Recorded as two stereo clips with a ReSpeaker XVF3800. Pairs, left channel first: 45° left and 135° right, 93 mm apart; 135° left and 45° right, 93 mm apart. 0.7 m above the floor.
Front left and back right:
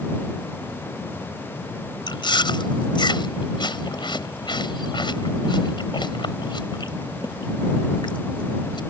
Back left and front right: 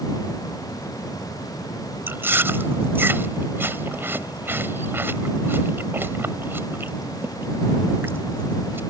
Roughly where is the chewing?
Ahead.